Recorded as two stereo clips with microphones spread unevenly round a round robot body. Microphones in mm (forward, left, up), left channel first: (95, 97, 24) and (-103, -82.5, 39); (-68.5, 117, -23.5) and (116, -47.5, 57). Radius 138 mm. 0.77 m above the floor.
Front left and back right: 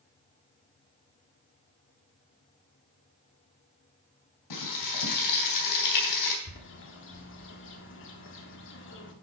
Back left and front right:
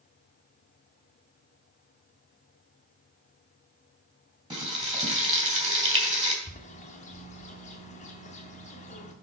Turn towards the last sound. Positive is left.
turn(degrees=85)